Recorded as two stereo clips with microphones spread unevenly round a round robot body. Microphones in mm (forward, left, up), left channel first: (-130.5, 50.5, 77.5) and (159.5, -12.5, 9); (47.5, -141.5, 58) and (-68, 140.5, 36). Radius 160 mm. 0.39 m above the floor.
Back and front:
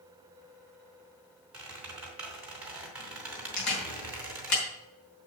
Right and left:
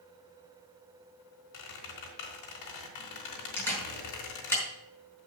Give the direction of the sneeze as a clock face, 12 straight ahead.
No sneeze in this recording.